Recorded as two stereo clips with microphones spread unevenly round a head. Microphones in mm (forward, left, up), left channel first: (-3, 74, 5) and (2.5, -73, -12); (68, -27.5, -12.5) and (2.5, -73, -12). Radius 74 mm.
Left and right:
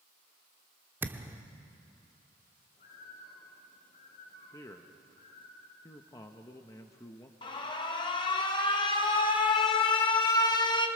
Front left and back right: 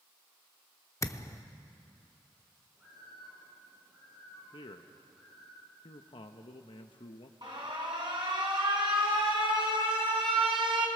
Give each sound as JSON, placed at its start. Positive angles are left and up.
{"t": 1.0, "sound": "a thud", "azimuth_deg": -10, "distance_m": 1.0}
{"t": 2.8, "sound": "a bird", "azimuth_deg": 130, "distance_m": 9.5}
{"t": 4.5, "sound": "a man speaking", "azimuth_deg": 20, "distance_m": 1.0}
{"t": 7.4, "sound": "an alarm", "azimuth_deg": 155, "distance_m": 1.4}